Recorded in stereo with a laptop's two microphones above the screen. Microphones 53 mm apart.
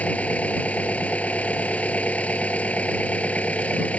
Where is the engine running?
25° left (ahead or behind).